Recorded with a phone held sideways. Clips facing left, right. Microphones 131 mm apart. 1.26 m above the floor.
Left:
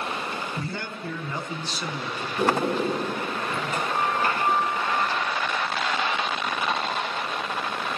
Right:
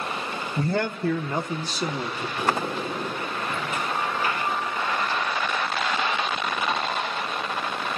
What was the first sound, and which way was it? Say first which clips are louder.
A man speaking: right 8 dB; 50° right (ahead or behind).